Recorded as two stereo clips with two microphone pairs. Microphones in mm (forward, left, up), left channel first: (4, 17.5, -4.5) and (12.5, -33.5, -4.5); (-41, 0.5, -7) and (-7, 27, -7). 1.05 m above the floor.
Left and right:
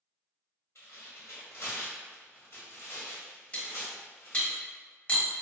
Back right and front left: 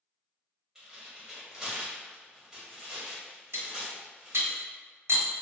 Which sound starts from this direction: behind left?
Tearing paper, at 0.8 s.